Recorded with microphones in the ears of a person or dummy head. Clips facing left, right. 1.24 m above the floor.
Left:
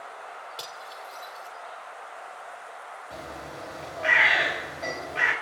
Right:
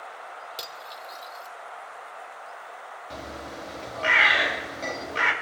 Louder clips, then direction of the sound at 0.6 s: Right 1 dB; 20° right (ahead or behind).